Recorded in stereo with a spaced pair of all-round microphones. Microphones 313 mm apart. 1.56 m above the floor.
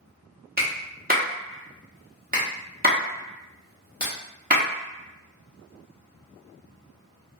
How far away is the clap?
About 0.7 m.